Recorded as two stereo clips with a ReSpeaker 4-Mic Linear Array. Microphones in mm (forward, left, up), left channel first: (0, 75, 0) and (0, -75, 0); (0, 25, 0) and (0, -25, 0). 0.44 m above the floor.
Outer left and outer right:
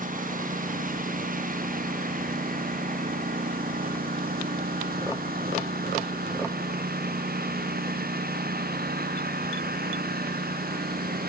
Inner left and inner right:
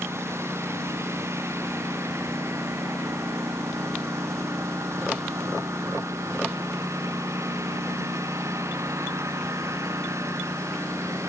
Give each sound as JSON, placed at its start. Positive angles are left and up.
{"t": 0.0, "sound": "a lawn mower", "side_deg": -65}